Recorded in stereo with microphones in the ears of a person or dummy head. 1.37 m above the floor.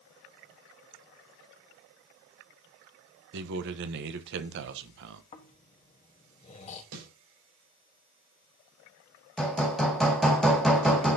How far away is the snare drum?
About 4.5 m.